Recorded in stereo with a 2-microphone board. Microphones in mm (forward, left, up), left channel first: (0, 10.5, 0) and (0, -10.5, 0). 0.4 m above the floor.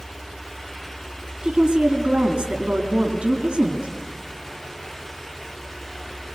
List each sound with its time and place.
1.4 s a woman speaking: 75° right (ahead or behind), 3.5 m